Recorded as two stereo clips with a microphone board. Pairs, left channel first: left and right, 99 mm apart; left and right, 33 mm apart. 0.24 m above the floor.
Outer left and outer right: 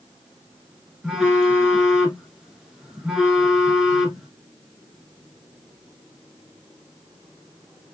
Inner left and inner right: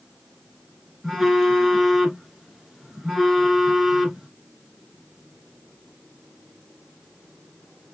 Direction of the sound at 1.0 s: 5° right (ahead or behind).